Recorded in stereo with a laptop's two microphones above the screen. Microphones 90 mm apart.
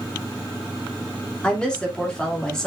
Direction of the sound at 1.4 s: 10° left (ahead or behind).